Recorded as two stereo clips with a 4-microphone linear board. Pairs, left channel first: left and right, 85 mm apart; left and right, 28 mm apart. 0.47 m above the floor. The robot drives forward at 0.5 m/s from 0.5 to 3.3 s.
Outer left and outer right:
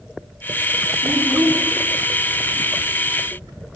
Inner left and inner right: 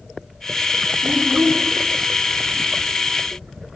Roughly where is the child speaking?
Centre.